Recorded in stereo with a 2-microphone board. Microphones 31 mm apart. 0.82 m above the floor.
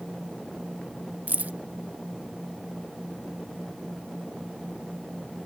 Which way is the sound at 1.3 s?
75° right (ahead or behind).